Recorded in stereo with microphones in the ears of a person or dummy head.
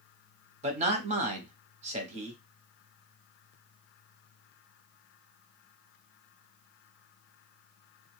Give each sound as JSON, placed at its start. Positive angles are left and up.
{"t": 0.6, "sound": "a man speaking", "side_deg": -40, "distance_m": 0.9}